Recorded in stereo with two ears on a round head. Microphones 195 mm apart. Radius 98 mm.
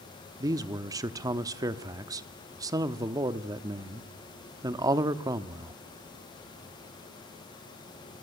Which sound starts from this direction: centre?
A man speaking, at 0.4 s.